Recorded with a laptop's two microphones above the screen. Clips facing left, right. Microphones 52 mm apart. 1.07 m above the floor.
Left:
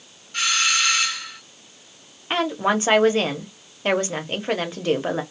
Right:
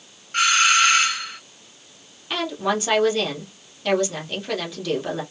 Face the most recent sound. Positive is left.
turn(degrees=35)  # may be behind; listen again after turning